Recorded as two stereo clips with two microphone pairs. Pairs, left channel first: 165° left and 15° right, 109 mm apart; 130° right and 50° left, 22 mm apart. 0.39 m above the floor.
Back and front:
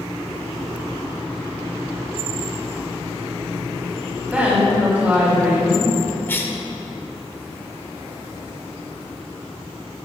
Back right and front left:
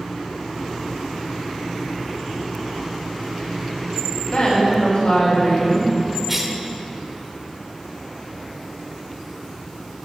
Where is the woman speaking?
90° right, 3 m.